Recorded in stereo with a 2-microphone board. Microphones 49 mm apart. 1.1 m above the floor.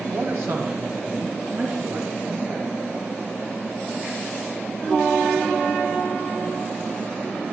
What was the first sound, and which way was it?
A man speaking, 45° right (ahead or behind).